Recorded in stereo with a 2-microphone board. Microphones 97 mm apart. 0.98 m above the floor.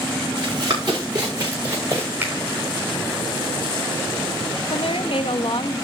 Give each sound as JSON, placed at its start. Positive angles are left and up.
{"t": 0.4, "sound": "running footsteps", "side_deg": -45, "distance_m": 5.5}
{"t": 2.2, "sound": "a finger snap", "side_deg": -25, "distance_m": 4.0}
{"t": 4.7, "sound": "a woman speaking", "side_deg": 60, "distance_m": 0.8}